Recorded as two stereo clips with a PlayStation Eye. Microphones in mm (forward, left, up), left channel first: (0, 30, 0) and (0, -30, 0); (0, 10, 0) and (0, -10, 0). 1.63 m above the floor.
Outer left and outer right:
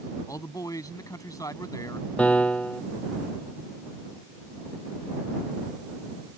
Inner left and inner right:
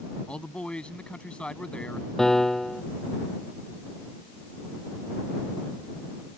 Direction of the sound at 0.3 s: 65° left (ahead or behind).